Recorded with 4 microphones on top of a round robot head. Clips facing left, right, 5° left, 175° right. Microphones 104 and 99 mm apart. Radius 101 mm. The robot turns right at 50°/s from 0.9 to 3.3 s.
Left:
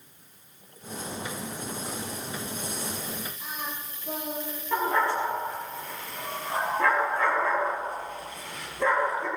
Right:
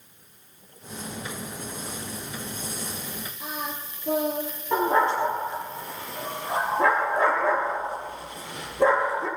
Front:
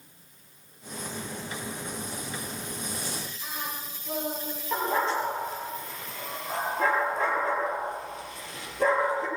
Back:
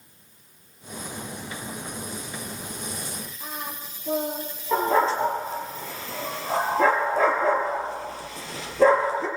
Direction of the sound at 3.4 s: 110° right.